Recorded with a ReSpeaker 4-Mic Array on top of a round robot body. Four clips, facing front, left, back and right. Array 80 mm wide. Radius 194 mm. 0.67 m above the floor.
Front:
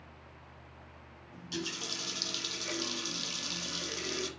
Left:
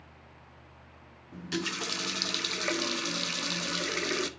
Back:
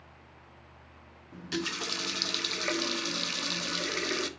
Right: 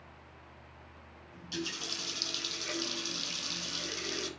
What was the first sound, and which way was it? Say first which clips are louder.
A running tap: left 6 dB, back 5 dB; 130° left.